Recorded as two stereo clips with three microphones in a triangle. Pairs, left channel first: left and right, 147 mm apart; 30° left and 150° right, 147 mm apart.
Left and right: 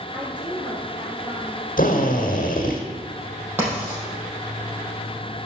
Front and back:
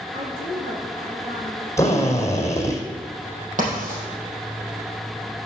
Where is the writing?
165° right, 4 m.